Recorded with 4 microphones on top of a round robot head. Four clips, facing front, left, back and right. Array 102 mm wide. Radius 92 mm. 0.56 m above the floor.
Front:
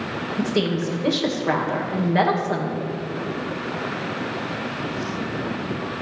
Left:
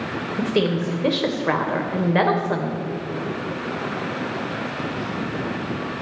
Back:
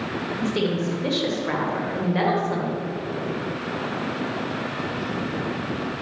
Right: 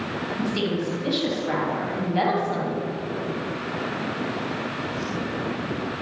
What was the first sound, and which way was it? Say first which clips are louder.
A woman speaking: left 5 dB, front 2 dB; 75° left.